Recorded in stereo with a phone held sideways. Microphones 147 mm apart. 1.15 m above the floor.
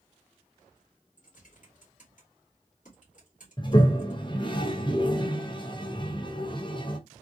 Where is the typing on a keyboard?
60° left (ahead or behind), 2 m.